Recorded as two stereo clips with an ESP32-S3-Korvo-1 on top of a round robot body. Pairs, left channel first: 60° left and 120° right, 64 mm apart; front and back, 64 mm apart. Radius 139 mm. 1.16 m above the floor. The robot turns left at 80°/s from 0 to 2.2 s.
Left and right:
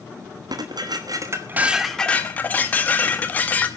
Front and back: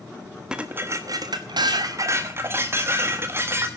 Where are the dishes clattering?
100° right, 1.2 m; by 3.7 s 125° left, 1.2 m.